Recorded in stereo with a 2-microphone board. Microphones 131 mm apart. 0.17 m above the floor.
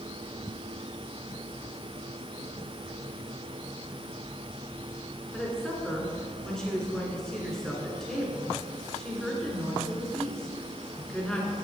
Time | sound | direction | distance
5.3 | a woman speaking | 5° left (ahead or behind) | 2.5 m